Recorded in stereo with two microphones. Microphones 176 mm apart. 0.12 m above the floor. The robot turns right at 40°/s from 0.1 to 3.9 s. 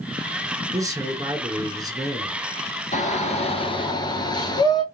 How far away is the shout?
About 1.5 m.